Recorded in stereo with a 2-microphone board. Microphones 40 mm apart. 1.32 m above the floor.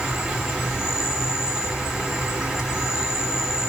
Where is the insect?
10° right (ahead or behind), 1.6 m.